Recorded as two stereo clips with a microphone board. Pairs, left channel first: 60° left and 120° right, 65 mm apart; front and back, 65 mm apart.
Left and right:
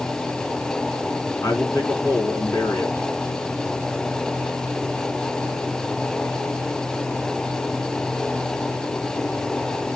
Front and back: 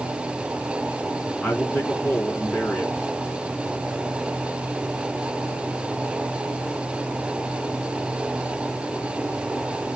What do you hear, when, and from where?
1.4 s a man speaking: 70° left, 5 m